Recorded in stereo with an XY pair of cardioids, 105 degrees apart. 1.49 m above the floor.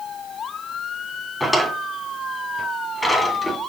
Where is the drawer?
10° left, 2.5 m.